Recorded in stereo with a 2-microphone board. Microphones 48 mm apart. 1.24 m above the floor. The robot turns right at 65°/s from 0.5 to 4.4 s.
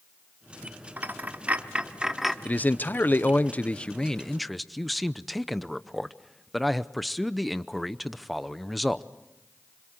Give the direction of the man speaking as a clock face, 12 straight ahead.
10 o'clock.